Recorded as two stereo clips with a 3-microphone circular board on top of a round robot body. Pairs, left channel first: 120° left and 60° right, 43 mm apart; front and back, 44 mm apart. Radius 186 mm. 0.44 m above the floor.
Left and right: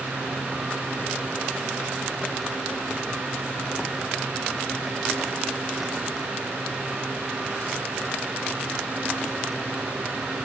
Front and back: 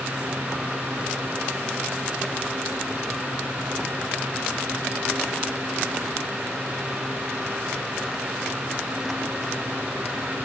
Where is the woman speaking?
No woman speaking in this recording.